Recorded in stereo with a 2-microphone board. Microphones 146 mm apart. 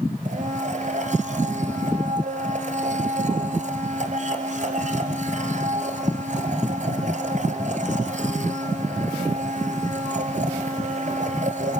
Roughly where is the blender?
Right.